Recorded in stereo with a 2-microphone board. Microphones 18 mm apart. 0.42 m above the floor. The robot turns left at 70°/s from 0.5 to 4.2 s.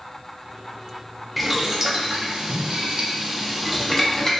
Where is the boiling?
5° right (ahead or behind), 0.6 m; by 4.3 s 25° left (ahead or behind), 0.6 m.